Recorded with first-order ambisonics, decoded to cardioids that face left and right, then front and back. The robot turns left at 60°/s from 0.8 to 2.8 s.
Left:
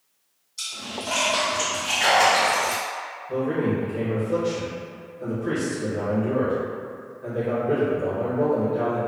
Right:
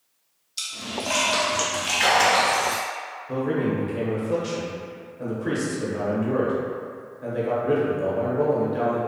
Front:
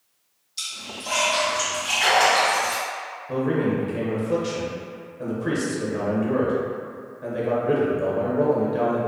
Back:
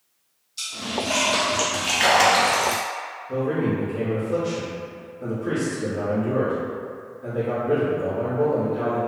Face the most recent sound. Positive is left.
turn(degrees=-40)